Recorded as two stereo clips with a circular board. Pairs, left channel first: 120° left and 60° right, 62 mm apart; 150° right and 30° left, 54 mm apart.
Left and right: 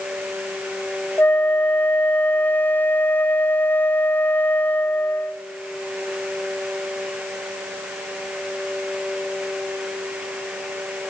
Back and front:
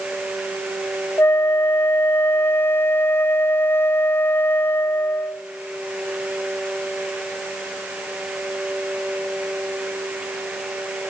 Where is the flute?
175° left, 0.7 m.